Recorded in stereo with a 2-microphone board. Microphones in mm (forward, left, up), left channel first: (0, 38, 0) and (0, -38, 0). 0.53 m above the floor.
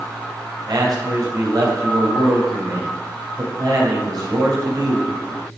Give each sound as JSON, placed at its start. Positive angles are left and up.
{"t": 0.7, "sound": "a man speaking", "side_deg": -65, "distance_m": 2.5}